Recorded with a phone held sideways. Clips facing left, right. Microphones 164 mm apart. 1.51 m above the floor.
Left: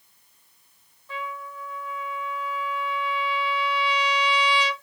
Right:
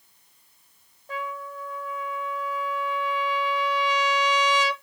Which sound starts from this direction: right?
A trumpet, at 1.1 s.